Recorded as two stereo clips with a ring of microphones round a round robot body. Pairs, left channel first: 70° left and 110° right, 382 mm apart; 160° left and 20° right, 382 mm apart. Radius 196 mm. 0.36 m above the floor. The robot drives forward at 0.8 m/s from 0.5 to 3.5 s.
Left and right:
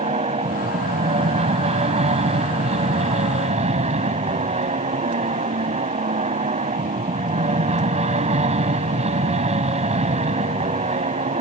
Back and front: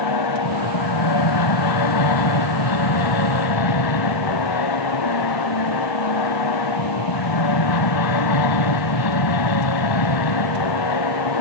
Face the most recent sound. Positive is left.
turn(degrees=175)